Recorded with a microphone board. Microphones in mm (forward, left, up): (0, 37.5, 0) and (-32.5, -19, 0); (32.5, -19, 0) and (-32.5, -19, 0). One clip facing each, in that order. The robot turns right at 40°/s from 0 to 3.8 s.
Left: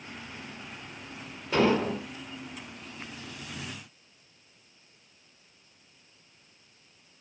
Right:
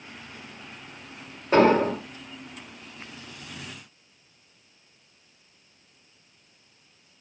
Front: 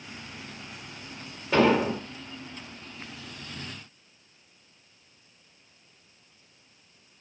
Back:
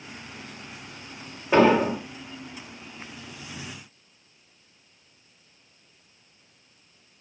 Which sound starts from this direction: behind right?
An explosion, at 1.5 s.